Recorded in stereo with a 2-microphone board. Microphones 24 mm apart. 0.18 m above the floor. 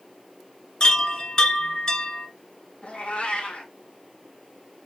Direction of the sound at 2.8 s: 65° left (ahead or behind).